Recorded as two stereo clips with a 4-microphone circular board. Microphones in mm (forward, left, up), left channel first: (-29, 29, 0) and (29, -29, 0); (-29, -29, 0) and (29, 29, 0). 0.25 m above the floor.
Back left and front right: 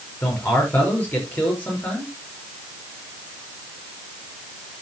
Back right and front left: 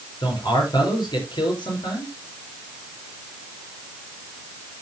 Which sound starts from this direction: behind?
A man speaking, at 0.2 s.